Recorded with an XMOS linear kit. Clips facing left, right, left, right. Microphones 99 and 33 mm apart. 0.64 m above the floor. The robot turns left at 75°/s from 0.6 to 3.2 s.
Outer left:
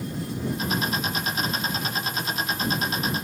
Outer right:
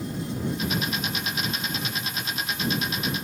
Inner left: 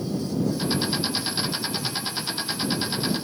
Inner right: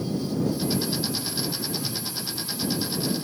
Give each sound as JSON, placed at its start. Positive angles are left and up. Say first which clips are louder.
{"t": 1.7, "sound": "a whoosh", "louder": "outer left 3 dB, inner left 2 dB", "side_deg": 0}